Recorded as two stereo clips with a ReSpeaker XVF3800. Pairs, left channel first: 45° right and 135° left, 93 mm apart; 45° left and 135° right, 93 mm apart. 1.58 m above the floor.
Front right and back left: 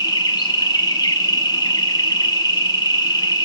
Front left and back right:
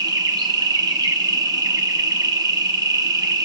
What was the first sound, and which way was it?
An insect, 90° right.